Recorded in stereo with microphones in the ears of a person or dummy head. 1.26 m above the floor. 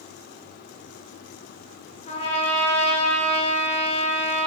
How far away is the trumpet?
About 1.0 m.